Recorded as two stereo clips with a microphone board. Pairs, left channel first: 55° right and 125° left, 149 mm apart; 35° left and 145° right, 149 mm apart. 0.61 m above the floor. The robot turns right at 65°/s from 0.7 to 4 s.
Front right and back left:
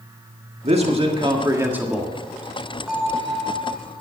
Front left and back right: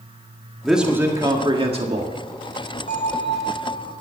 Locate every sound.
0.6 s a man speaking: 125° left, 1.6 m; by 2.1 s 140° right, 1.6 m
2.9 s a bell: 40° left, 1.4 m; by 3.9 s 105° left, 1.4 m